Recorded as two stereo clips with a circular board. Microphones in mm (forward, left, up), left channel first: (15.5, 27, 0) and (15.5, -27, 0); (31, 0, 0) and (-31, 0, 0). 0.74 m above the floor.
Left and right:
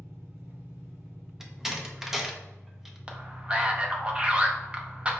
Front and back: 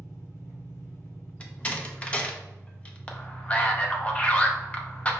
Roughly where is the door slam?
Ahead.